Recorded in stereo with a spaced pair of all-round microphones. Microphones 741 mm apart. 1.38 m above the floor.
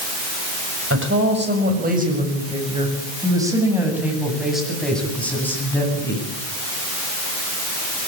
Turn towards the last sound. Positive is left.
turn(degrees=5)  # may be behind; listen again after turning